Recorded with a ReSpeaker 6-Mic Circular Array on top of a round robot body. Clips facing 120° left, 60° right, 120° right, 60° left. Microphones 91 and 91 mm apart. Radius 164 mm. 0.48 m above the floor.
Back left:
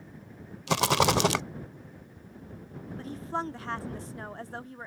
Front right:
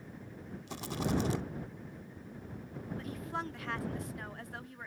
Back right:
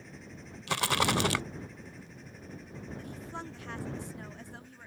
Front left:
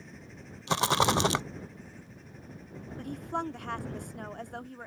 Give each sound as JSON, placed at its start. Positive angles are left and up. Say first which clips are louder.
{"t": 0.7, "sound": "a rattle", "louder": "back left 11 dB, front left 3 dB", "azimuth_deg": 125}
{"t": 3.0, "sound": "a woman speaking", "louder": "back left 7 dB, front left 11 dB", "azimuth_deg": 70}